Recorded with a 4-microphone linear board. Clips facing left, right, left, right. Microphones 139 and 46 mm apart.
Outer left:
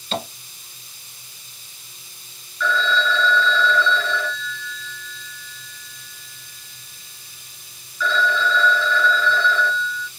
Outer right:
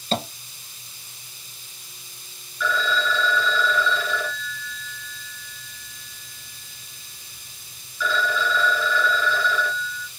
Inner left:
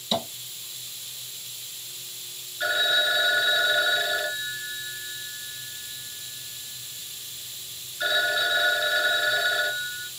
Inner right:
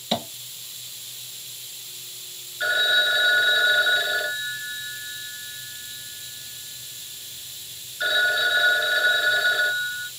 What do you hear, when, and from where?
0.1 s tapping: 40° right (ahead or behind), 1.7 m
2.6 s a phone ringing: 10° right (ahead or behind), 1.4 m